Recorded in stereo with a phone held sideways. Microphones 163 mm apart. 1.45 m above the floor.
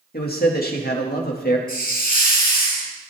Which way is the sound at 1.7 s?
70° left (ahead or behind).